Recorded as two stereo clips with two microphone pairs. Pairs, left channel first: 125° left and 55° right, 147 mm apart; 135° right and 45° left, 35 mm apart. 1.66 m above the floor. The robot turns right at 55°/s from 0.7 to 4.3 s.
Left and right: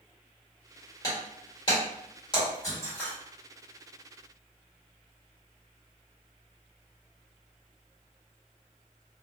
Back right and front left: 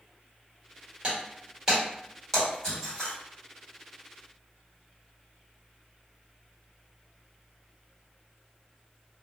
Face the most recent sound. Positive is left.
turn(degrees=-100)